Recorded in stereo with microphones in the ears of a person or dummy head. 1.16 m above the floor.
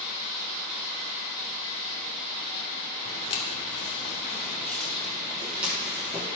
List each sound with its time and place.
3.0 s footsteps: 40° left (ahead or behind), 1.7 m; by 6.4 s 15° right (ahead or behind), 2.5 m